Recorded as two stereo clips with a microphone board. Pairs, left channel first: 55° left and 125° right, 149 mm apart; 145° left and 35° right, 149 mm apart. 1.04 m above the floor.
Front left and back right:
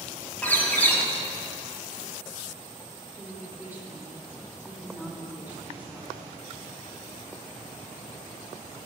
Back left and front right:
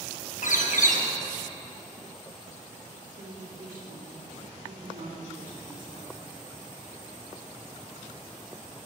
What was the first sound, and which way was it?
A bird, 135° left.